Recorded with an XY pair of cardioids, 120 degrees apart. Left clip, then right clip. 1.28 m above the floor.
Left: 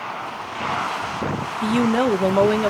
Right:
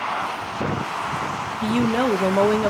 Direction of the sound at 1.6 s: 10° left.